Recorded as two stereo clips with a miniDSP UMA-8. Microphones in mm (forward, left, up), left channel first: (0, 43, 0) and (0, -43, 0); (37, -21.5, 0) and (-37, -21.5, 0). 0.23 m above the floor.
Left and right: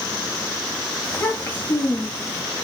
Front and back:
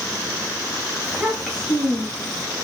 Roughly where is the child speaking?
Behind left.